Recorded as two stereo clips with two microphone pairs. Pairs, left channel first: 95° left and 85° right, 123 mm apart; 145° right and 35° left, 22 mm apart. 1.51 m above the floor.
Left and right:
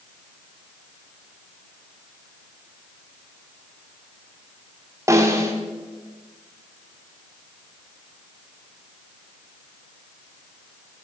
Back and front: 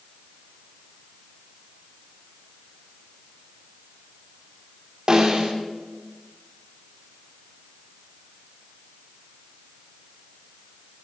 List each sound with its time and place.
5.1 s a snare drum: 20° right, 2 m